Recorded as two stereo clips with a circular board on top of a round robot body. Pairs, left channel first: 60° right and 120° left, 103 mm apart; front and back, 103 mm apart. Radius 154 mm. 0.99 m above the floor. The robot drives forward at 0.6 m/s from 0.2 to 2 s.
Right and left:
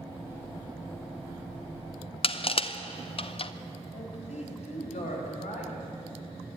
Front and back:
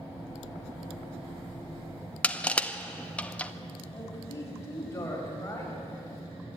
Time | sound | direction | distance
2.2 | crushing | 75° right | 1.0 m
3.9 | a man speaking | 65° right | 5 m